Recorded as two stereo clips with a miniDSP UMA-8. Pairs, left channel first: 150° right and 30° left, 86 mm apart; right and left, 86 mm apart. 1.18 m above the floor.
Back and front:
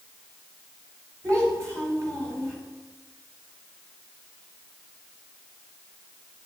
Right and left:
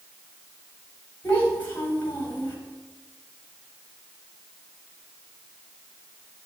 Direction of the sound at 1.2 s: 25° right.